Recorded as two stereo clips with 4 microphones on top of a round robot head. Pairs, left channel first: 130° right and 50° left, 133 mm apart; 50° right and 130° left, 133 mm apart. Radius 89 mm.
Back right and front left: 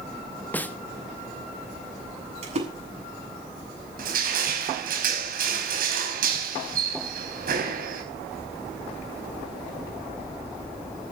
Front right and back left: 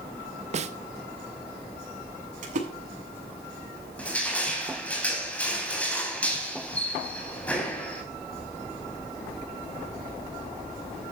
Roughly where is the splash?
Left.